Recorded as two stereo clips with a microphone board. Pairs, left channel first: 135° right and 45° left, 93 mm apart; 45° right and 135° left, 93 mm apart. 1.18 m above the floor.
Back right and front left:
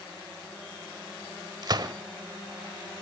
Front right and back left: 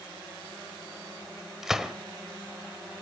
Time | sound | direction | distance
1.6 | a gunshot | 50° left | 1.2 m